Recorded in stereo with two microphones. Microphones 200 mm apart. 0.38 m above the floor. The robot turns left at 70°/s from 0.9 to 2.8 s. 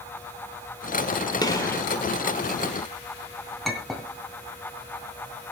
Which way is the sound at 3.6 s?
Centre (ahead or behind).